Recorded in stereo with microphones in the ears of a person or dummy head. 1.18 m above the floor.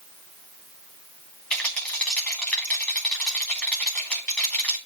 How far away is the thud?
I don't hear a thud.